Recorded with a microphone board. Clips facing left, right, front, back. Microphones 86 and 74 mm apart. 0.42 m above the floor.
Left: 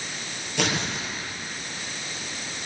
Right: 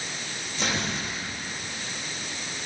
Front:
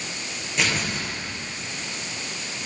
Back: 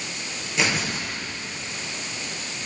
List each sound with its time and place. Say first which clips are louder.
0.6 s tearing paper: left 2 dB, back 1 dB; 95° left, 8 m